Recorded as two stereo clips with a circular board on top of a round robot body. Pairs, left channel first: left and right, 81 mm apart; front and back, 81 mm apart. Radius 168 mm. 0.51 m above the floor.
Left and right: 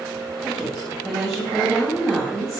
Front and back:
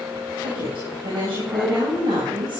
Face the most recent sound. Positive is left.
turn(degrees=180)